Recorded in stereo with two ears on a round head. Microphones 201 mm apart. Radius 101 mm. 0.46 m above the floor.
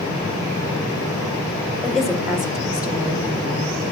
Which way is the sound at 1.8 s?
Centre (ahead or behind).